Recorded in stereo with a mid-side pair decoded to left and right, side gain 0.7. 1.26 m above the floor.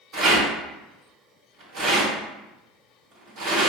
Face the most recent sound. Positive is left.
turn(degrees=-65)